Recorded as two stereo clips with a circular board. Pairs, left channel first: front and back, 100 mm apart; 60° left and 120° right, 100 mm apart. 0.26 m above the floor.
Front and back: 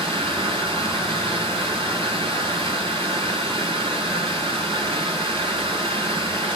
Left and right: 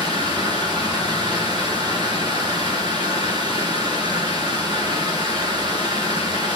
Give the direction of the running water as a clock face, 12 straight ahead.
5 o'clock.